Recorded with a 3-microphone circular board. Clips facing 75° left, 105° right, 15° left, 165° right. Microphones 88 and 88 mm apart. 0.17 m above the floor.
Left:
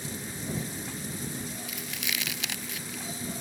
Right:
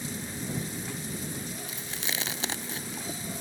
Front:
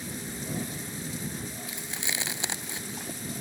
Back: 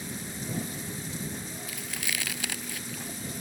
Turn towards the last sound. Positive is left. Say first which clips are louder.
# even, even
turn(degrees=-50)